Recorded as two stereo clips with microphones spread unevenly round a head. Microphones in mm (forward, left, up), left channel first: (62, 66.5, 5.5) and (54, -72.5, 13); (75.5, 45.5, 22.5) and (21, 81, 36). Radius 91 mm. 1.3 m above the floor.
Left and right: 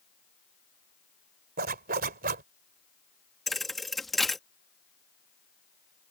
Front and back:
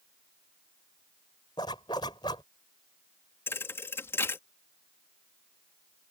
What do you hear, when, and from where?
1.6 s a zipper: 90° right
3.5 s a thud: 10° right